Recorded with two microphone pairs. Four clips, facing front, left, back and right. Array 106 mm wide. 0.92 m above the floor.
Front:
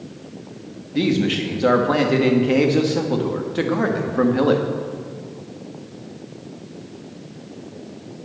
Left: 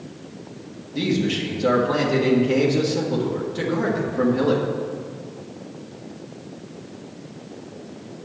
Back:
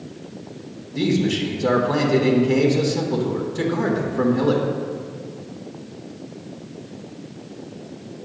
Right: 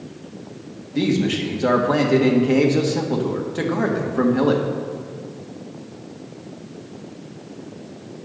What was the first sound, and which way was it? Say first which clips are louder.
A man speaking: right 3 dB, front 1 dB; 45° right.